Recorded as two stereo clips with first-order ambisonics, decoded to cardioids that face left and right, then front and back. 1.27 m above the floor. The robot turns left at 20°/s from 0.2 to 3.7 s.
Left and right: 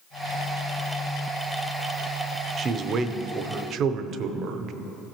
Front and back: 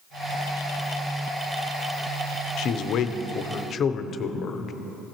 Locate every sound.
2.6 s a man speaking: 30° right, 0.5 m; by 4.7 s 55° right, 0.5 m